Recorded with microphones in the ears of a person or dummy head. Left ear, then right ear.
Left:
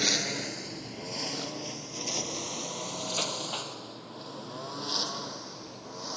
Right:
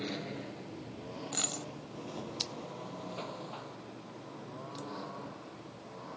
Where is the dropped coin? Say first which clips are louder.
Left 2 dB; 35° right (ahead or behind).